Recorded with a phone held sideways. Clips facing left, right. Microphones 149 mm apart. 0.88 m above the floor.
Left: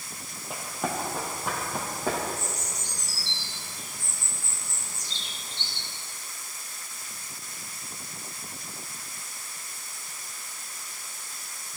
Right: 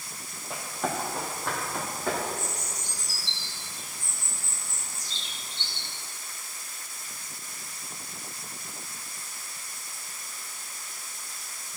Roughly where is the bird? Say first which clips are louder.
Even; left.